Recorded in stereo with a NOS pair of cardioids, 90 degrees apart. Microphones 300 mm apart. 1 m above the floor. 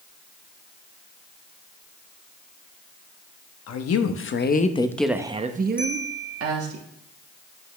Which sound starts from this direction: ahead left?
A woman speaking, at 3.7 s.